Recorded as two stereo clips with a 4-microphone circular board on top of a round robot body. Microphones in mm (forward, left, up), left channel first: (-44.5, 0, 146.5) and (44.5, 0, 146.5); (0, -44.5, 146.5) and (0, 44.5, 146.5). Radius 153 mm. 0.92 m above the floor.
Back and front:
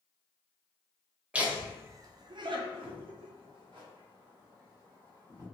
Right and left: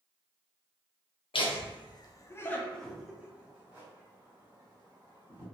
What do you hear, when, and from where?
1.3 s laughter: 75° right, 0.8 m; by 5.4 s 35° left, 1.9 m